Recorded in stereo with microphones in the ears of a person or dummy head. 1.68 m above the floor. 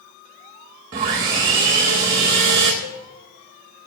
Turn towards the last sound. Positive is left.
turn(degrees=70)  # may be behind; listen again after turning